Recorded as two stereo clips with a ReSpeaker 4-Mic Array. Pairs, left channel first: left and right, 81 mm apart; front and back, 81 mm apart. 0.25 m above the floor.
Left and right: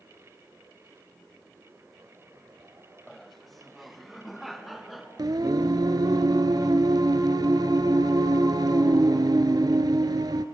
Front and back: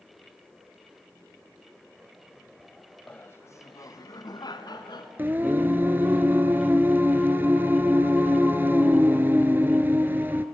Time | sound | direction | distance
3.1 | laughter | 10° left | 0.9 m
5.2 | singing | 115° right | 0.7 m